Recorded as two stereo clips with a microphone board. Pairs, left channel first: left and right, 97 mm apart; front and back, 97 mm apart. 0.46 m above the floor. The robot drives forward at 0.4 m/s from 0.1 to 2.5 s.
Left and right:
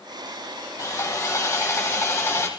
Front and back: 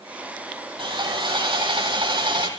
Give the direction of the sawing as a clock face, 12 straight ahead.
7 o'clock.